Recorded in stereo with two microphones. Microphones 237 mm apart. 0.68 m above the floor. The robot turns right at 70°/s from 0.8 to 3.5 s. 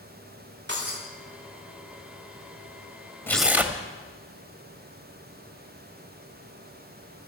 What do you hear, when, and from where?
0.7 s breaking glass: 50° right (ahead or behind), 8 m; by 1.0 s 35° right (ahead or behind), 8 m
3.3 s tearing paper: 10° left (ahead or behind), 1.4 m; by 3.8 s 5° right (ahead or behind), 1.4 m